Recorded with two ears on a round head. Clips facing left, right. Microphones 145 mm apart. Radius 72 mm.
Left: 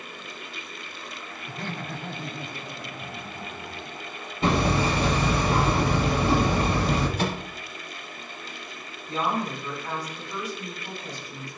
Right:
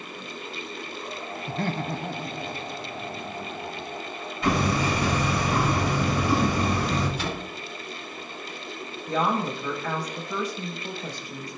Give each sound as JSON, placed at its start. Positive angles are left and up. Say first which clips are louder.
{"t": 1.5, "sound": "laughter", "louder": "right 6 dB", "side_deg": -50, "distance_m": 0.8}
{"t": 4.4, "sound": "hammering", "louder": "left 1 dB", "side_deg": 25, "distance_m": 6.5}
{"t": 7.2, "sound": "a microwave", "louder": "left 3 dB", "side_deg": 40, "distance_m": 3.0}
{"t": 9.1, "sound": "a woman speaking", "louder": "right 2 dB", "side_deg": -60, "distance_m": 5.5}